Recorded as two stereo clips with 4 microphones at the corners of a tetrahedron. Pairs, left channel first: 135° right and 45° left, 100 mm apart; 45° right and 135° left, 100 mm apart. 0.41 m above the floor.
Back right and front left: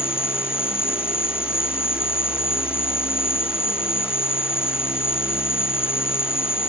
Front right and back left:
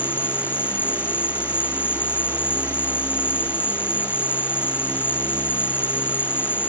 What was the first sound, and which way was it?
An insect, 115° right.